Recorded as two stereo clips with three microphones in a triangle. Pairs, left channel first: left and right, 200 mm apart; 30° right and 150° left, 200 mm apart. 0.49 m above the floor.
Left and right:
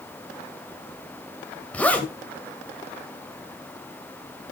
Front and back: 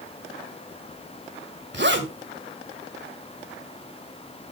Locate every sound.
1.7 s a zipper: 170° left, 2.5 m